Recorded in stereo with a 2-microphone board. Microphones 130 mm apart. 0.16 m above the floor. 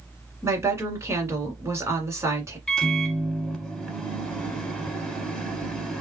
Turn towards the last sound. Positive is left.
turn(degrees=5)  # may be behind; listen again after turning